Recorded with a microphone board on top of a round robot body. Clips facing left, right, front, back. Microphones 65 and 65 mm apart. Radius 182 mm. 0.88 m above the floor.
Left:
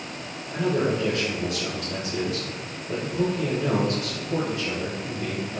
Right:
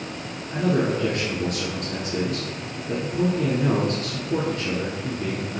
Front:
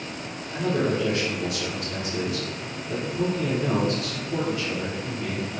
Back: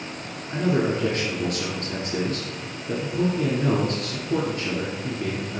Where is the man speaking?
135° right, 2 m.